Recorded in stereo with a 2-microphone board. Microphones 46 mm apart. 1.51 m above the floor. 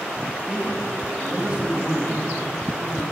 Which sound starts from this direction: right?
A man speaking, at 0.5 s.